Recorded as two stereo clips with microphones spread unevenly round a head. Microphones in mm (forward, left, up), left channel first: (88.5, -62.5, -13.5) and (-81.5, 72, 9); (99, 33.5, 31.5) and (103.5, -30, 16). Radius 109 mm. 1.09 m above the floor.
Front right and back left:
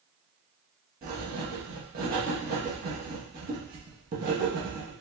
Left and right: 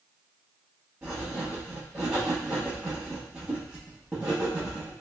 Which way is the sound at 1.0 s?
165° right.